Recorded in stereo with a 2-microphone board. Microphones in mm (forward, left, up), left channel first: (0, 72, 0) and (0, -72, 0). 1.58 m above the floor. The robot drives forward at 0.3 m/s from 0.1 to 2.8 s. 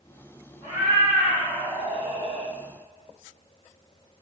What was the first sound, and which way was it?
A cat meowing, 20° right (ahead or behind).